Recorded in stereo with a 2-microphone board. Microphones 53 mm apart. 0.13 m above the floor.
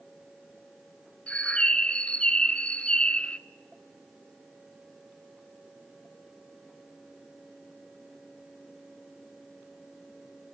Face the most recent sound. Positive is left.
turn(degrees=20)  # may be behind; listen again after turning